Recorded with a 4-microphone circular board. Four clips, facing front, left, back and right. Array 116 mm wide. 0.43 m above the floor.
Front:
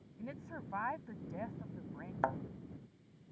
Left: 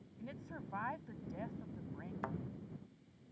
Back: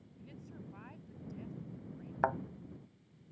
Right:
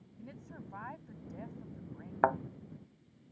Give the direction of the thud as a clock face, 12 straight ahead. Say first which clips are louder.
Right 16 dB, back 3 dB; 3 o'clock.